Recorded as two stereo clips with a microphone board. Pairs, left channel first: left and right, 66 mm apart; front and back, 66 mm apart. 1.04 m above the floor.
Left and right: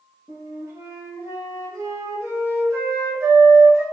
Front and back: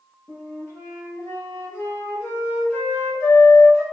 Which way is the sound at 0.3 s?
50° right.